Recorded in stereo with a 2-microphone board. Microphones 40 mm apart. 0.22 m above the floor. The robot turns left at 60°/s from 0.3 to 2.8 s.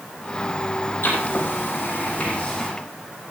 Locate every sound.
1.0 s writing: 65° left (ahead or behind), 6.5 m; by 2.7 s 15° left (ahead or behind), 6.5 m